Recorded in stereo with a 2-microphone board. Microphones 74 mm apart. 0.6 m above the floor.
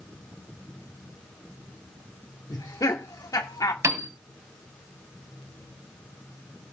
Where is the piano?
40° right (ahead or behind), 1.5 m.